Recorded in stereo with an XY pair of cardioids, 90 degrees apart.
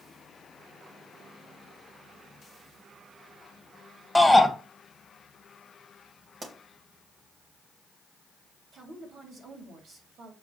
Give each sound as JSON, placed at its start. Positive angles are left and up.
{"t": 4.2, "sound": "a shout", "azimuth_deg": 5, "distance_m": 2.0}
{"t": 6.4, "sound": "a pop", "azimuth_deg": -40, "distance_m": 3.0}
{"t": 8.7, "sound": "a woman speaking", "azimuth_deg": -65, "distance_m": 3.5}